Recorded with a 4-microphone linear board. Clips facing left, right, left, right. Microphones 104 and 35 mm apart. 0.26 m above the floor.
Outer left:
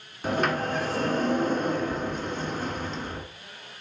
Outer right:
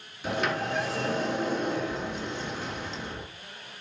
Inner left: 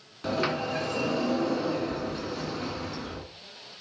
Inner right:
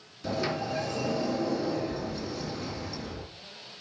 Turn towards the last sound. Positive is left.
turn(degrees=45)  # may be behind; listen again after turning